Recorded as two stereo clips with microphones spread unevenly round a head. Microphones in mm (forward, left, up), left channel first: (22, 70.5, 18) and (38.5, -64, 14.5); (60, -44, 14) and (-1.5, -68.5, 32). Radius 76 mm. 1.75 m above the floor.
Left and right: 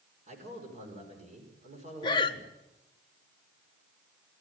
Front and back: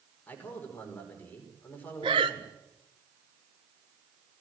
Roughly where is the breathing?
Behind.